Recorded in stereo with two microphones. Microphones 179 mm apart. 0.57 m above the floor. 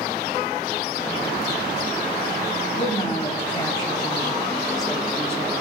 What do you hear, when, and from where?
2.8 s a woman speaking: 45° left (ahead or behind), 3 m; by 5.5 s 20° right (ahead or behind), 1.9 m